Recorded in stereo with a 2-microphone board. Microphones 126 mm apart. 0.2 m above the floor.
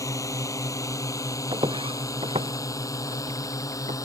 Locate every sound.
0.0 s a drone: 25° left (ahead or behind)
1.5 s footsteps: 40° right (ahead or behind); by 4.0 s 60° right (ahead or behind)